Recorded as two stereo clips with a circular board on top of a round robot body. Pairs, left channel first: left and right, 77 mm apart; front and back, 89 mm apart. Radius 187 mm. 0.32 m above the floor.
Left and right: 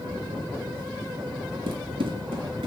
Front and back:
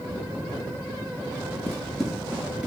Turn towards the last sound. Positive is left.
turn(degrees=-100)